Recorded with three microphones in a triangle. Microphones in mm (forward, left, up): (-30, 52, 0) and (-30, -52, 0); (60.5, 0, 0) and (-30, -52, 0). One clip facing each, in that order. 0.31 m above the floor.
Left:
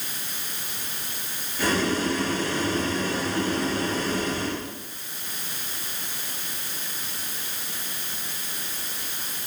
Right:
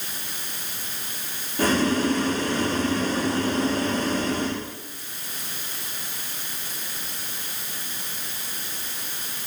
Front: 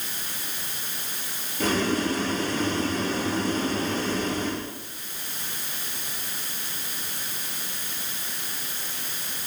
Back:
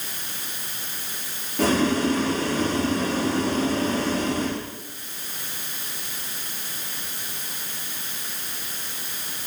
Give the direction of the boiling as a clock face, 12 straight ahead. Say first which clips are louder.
Right 3 dB, back 4 dB; 5 o'clock.